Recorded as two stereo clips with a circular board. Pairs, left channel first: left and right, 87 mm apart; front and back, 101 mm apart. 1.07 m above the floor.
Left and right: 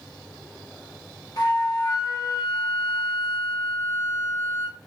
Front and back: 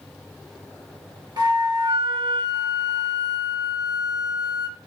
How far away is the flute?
About 1.1 m.